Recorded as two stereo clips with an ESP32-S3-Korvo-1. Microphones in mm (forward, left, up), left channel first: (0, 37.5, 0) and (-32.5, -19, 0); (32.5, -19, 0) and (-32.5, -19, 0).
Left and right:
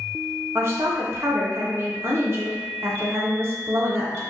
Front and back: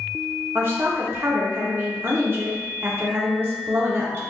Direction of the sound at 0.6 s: 145° right.